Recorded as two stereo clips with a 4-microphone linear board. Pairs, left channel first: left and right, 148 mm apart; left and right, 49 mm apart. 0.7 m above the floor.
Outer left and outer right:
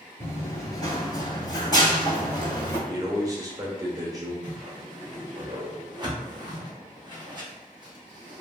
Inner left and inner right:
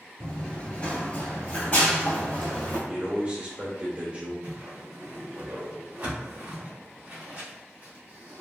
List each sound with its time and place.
0.2 s running footsteps: 15° left (ahead or behind), 0.7 m; by 2.8 s 25° left (ahead or behind), 1.4 m
2.9 s a man speaking: 25° right (ahead or behind), 0.7 m
4.4 s a whoosh: 30° right (ahead or behind), 0.8 m